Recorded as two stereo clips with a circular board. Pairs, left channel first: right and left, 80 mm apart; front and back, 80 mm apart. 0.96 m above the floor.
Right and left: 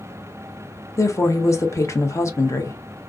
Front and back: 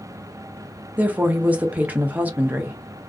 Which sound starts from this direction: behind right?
A woman speaking, at 1.0 s.